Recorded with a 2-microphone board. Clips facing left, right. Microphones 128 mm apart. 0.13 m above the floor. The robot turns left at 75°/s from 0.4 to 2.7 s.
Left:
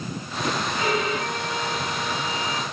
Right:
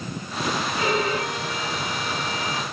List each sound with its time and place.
0.8 s a violin: 20° right, 6.5 m; by 2.6 s 160° right, 6.5 m